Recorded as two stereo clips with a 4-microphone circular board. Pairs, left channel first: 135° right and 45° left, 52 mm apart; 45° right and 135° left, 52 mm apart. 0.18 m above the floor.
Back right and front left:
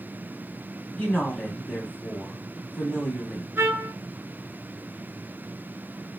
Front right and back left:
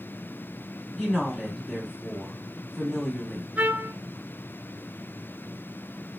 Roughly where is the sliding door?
I don't hear a sliding door.